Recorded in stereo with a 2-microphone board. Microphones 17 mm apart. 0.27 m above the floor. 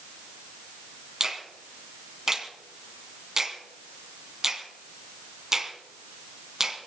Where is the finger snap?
20° right (ahead or behind), 2.5 m.